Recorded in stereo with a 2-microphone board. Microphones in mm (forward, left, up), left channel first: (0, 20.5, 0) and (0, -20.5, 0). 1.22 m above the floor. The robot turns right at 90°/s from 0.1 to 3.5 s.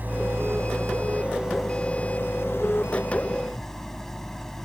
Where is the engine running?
135° right; by 4.7 s 170° left.